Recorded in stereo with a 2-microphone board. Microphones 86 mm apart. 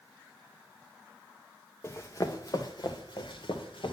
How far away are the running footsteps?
About 1.7 m.